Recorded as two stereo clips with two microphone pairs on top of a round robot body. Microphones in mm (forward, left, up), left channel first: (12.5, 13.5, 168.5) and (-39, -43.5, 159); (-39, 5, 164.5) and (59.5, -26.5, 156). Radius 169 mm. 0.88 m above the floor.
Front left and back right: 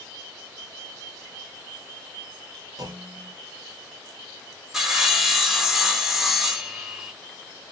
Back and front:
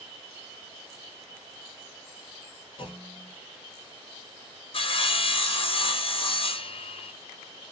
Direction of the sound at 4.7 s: 155° left.